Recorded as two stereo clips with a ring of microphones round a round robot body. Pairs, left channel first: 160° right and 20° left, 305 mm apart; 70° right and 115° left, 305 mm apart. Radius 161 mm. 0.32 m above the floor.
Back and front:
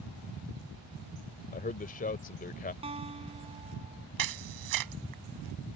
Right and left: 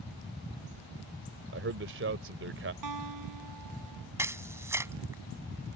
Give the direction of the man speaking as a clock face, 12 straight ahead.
7 o'clock.